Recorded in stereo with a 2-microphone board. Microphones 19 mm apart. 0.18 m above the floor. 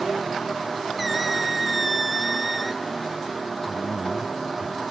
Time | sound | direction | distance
1.0 | a squeak | centre (ahead or behind) | 0.6 m
3.7 | a man speaking | centre (ahead or behind) | 1.2 m